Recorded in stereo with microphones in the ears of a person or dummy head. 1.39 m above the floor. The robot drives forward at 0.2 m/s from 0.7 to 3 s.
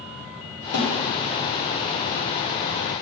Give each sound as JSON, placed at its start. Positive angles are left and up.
{"t": 0.7, "sound": "a snare drum", "side_deg": 85, "distance_m": 4.5}